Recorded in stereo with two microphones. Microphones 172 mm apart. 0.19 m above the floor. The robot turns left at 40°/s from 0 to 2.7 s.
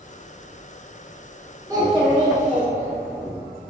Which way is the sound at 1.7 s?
25° right.